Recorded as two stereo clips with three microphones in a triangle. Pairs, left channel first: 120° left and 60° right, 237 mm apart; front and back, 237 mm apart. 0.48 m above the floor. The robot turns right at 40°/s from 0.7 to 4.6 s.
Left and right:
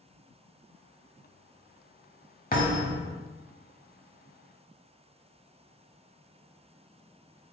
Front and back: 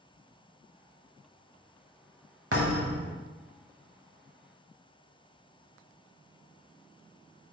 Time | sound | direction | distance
2.5 | a thud | 170° left | 0.7 m